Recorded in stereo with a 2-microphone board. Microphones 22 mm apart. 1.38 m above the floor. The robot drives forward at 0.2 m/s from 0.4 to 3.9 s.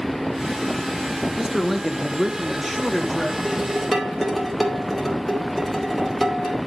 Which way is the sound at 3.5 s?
Centre (ahead or behind).